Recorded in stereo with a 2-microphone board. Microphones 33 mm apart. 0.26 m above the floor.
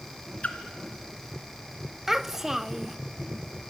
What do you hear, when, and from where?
0.4 s a splash: 45° left (ahead or behind), 2.5 m
2.1 s a child speaking: 10° right (ahead or behind), 0.5 m